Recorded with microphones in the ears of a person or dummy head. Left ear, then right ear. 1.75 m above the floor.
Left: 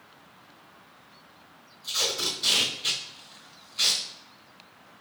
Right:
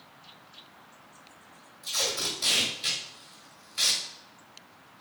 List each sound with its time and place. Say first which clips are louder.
1.8 s tape being pulled: left 2 dB; 30° right (ahead or behind), 1.6 m